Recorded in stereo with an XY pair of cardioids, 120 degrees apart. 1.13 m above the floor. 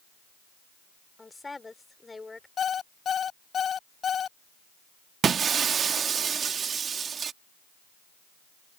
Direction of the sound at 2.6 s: 45° left.